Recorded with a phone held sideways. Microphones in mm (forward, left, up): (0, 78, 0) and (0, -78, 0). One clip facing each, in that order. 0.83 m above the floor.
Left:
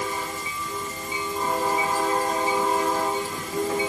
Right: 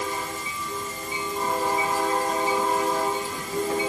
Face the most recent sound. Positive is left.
No sound to turn to.